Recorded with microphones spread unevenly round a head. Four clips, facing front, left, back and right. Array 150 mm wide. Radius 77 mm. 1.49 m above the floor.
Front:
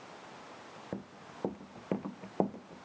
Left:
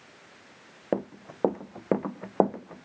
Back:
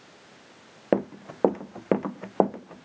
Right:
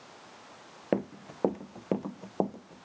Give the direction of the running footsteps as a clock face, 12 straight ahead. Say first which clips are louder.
Left 1 dB, back 19 dB; 6 o'clock.